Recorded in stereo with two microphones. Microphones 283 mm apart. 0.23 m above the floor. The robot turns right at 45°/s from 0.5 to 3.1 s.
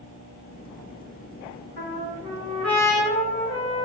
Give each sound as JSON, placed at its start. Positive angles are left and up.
{"t": 1.8, "sound": "a trumpet", "azimuth_deg": -35, "distance_m": 1.7}